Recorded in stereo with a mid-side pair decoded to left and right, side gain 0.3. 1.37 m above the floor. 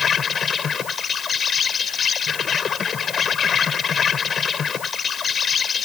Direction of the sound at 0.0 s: 65° left.